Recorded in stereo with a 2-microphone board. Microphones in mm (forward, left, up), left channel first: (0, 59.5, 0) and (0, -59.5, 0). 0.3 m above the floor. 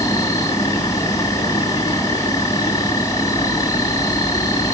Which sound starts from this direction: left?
An insect, at 0.0 s.